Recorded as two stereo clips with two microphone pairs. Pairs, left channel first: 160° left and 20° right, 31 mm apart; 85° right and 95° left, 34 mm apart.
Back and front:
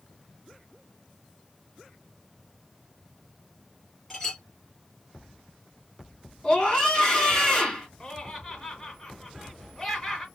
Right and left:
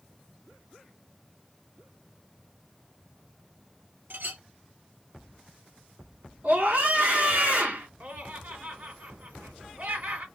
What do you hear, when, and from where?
4.1 s a clink: 85° left, 2.5 m
6.4 s a scream: 95° left, 2.5 m
8.0 s laughter: 90° left, 2 m